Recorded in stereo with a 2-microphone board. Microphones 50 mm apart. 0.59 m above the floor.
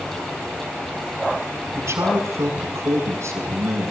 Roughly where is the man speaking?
Right.